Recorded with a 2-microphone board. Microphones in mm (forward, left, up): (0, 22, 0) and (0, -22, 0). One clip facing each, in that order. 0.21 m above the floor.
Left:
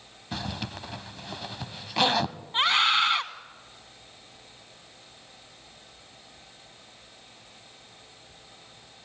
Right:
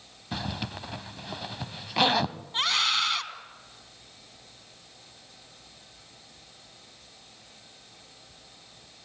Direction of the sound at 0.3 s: 5° right (ahead or behind).